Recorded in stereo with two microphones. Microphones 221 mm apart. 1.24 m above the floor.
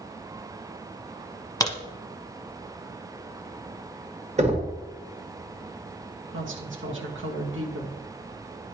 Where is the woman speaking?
65° right (ahead or behind), 1.5 m.